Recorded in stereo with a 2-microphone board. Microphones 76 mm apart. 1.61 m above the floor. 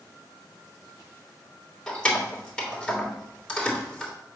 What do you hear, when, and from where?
1.9 s keys jangling: 10° left (ahead or behind), 2.5 m